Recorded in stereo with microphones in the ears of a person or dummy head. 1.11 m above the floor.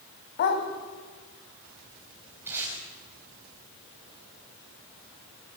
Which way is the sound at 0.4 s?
50° left (ahead or behind).